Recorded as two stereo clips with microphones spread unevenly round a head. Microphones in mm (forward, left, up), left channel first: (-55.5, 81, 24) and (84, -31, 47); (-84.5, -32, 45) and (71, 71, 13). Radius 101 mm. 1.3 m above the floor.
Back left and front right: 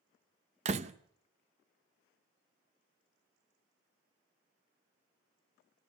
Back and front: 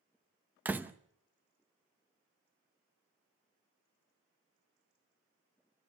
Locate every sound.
0.7 s a door slam: 55° right, 0.6 m